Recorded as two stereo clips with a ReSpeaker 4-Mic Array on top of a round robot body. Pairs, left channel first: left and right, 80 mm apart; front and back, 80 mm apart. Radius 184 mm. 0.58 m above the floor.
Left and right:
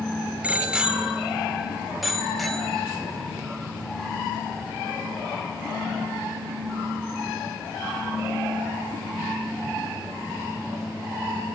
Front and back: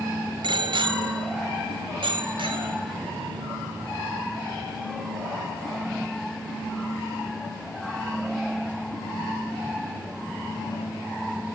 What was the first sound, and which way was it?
A bicycle bell, 165° right.